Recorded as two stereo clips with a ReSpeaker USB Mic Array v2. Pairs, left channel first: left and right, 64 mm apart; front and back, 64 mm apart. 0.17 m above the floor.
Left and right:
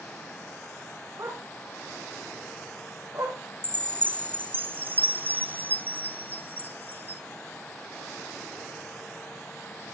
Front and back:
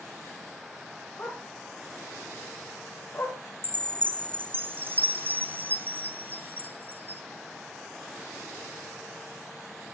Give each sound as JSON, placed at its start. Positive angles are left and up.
{"t": 1.2, "sound": "a dog barking", "azimuth_deg": -60, "distance_m": 8.5}
{"t": 3.6, "sound": "a chime", "azimuth_deg": -135, "distance_m": 0.9}